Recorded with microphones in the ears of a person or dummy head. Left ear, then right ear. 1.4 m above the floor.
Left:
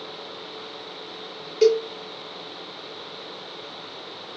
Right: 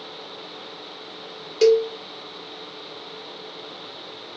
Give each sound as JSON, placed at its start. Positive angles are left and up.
{"t": 1.6, "sound": "a cowbell", "side_deg": -20, "distance_m": 0.5}